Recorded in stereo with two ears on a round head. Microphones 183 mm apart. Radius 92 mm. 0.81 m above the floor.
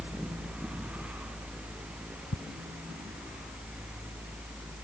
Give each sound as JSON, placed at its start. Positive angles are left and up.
{"t": 2.3, "sound": "ticking", "side_deg": 65}